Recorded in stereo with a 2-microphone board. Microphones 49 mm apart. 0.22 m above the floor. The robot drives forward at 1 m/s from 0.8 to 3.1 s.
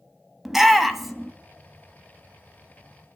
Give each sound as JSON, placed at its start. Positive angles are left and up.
{"t": 0.5, "sound": "a shout", "side_deg": -5, "distance_m": 1.0}